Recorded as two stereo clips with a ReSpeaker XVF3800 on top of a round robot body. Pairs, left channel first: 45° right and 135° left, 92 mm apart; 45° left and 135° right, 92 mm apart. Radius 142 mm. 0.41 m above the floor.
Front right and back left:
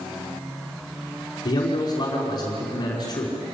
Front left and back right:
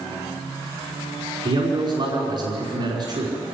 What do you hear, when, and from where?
1.4 s a man speaking: 95° right, 5 m